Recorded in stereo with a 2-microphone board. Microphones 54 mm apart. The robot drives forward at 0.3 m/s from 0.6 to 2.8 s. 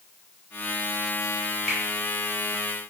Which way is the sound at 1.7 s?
10° left (ahead or behind).